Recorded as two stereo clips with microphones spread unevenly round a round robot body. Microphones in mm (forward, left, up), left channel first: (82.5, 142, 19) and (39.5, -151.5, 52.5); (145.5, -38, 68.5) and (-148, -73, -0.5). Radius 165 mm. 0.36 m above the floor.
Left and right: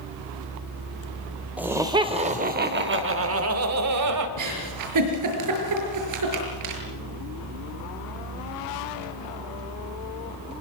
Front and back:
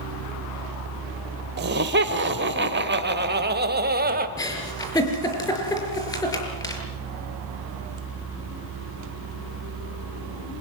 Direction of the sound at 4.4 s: 75° right.